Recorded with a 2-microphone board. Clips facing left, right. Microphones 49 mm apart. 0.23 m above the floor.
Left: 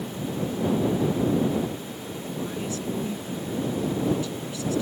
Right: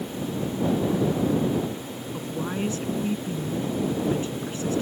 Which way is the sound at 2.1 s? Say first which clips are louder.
Right 3 dB; 35° right (ahead or behind).